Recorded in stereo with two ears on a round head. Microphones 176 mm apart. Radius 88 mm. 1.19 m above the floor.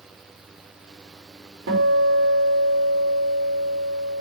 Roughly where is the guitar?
Right.